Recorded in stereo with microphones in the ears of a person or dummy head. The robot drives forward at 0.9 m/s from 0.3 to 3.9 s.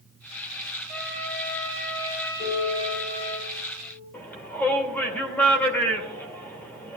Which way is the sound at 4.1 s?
10° left (ahead or behind).